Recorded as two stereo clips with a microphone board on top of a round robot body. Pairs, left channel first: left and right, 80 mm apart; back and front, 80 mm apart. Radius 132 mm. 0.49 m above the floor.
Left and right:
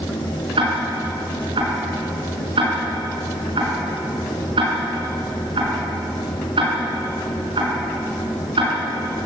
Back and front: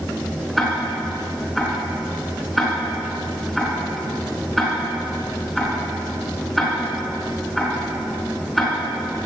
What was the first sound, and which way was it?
Ticking, 95° right.